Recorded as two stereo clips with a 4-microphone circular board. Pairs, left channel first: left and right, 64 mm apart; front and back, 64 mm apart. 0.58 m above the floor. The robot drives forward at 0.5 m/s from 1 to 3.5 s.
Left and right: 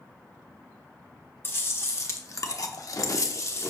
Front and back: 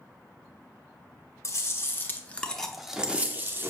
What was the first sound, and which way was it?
Chewing, 35° left.